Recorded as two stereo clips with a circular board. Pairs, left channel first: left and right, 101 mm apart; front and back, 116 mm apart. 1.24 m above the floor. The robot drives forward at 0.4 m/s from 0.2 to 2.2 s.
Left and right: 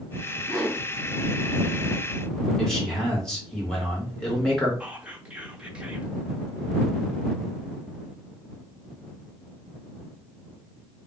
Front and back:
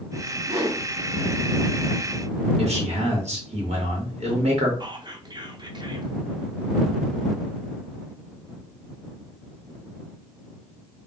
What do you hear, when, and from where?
0.5 s a whoosh: 145° right, 1.1 m; by 0.8 s 150° right, 1.2 m
2.6 s a man speaking: 175° left, 1.3 m
4.8 s whispering: 160° right, 0.6 m